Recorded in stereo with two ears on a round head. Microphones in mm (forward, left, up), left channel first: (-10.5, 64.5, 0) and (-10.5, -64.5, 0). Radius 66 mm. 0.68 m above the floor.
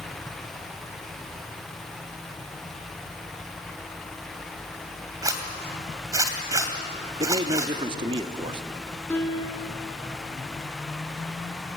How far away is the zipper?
About 2 m.